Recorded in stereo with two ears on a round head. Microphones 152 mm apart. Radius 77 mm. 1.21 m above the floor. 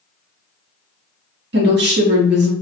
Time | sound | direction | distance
1.5 | a woman speaking | 70° right (ahead or behind) | 1.3 m